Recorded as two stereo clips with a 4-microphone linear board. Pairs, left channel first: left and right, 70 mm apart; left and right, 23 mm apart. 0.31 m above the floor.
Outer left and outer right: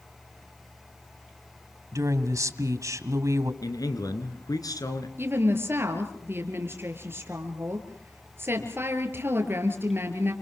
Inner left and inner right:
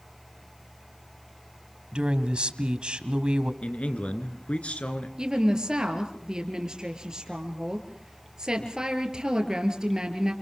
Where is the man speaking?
65° left (ahead or behind), 3.5 m.